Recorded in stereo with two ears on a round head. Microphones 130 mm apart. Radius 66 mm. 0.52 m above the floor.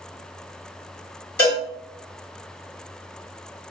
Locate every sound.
1.4 s a cowbell: 15° left (ahead or behind), 1.8 m